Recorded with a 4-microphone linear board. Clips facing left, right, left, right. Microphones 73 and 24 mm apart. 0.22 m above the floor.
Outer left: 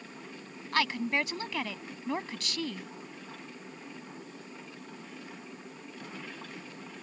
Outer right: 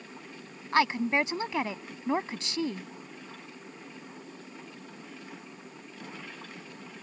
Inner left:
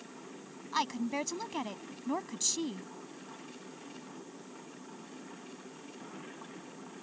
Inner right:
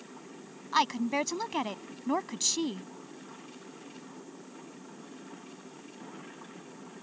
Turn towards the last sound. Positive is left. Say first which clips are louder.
# outer right 4 dB, inner right 5 dB
turn(degrees=-25)  # may be behind; listen again after turning